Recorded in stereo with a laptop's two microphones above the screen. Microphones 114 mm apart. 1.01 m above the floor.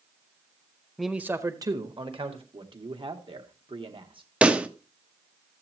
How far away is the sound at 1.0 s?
About 0.6 m.